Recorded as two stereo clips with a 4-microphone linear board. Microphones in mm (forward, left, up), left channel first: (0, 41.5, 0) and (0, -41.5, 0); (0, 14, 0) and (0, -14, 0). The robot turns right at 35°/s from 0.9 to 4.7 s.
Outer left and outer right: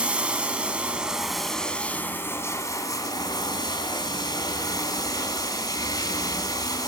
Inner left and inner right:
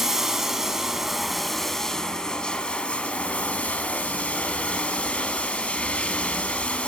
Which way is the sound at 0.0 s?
15° right.